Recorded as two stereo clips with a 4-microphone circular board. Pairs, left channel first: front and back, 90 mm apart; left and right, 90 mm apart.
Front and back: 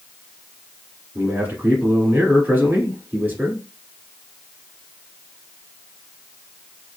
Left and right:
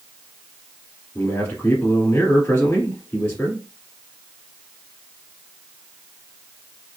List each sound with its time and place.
1.1 s a man speaking: 140° left, 1.5 m